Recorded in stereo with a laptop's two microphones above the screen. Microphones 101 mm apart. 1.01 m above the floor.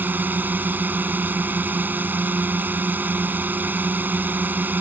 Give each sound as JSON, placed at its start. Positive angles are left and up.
{"t": 0.0, "sound": "a drone", "side_deg": -15}